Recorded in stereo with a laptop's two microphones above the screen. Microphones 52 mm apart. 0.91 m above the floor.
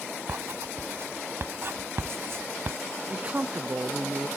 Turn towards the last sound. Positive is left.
turn(degrees=-30)  # may be behind; listen again after turning